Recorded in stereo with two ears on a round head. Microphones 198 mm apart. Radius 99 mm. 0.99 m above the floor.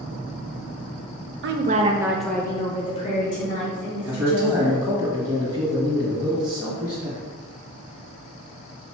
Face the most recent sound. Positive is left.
turn(degrees=-10)  # may be behind; listen again after turning